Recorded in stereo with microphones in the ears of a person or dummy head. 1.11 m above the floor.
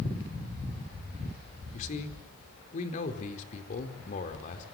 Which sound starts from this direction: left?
A man speaking, at 1.7 s.